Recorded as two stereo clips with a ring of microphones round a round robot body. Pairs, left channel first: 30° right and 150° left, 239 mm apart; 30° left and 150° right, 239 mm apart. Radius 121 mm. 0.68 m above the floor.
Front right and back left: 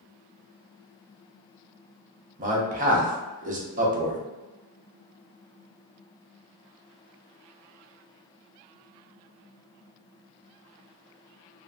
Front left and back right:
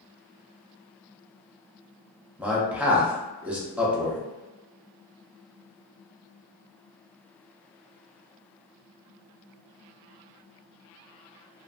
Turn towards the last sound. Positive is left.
turn(degrees=130)